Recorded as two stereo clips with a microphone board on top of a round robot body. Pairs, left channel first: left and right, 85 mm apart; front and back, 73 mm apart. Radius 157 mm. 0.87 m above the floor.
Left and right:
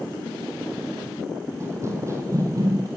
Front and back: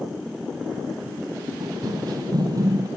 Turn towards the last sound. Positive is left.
turn(degrees=-140)